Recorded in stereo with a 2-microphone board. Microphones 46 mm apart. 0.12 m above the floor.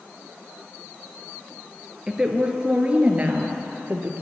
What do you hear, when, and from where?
2.1 s a woman speaking: 10° right (ahead or behind), 1.7 m; by 4.2 s 45° right (ahead or behind), 2.0 m